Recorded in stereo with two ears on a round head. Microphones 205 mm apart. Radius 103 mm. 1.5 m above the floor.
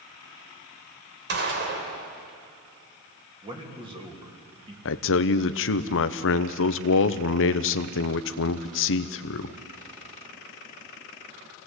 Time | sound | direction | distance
1.3 | a gunshot | 50° right (ahead or behind) | 3 m
3.4 | a man speaking | 25° right (ahead or behind) | 3 m
4.8 | a man speaking | 60° left (ahead or behind) | 0.8 m